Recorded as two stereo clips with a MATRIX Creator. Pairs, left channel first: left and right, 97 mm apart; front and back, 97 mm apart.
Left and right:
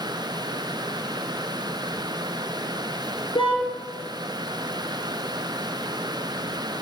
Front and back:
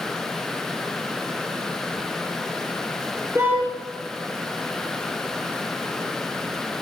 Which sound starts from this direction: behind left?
A car horn, at 3.4 s.